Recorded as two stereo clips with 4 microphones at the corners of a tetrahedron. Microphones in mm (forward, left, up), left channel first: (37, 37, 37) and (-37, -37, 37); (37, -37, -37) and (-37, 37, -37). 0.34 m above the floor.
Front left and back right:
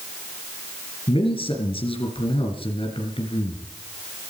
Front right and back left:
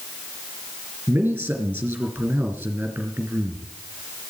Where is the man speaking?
65° left, 3 m.